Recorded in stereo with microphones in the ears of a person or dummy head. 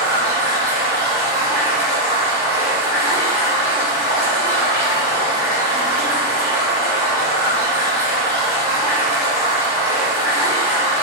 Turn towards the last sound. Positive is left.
turn(degrees=-15)  # may be behind; listen again after turning